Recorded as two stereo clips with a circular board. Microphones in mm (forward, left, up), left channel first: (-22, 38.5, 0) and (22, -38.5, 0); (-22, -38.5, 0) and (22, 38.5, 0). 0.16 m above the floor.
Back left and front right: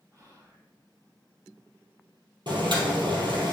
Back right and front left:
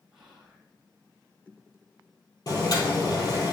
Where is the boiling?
80° right, 2.0 m.